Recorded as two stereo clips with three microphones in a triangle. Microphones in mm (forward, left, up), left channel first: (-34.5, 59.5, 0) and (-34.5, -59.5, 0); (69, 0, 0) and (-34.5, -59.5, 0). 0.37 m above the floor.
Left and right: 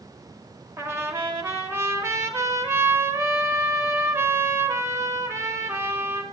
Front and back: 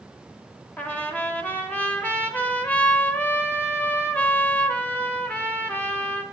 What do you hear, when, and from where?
0.8 s a trumpet: 40° right, 0.9 m